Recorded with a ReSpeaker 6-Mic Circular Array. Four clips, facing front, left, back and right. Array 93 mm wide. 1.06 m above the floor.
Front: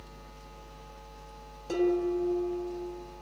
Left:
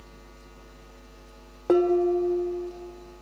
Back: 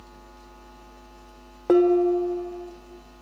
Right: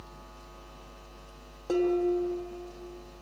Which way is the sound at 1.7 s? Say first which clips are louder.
Left 5 dB, back 9 dB; 150° left.